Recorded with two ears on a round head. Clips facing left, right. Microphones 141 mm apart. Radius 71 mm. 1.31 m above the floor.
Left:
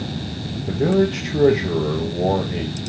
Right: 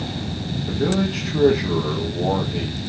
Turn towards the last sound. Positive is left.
turn(degrees=20)  # may be behind; listen again after turning